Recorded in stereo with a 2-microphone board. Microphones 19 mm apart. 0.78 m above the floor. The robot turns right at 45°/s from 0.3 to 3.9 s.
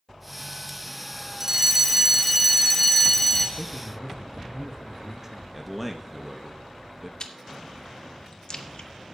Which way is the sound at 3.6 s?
15° right (ahead or behind).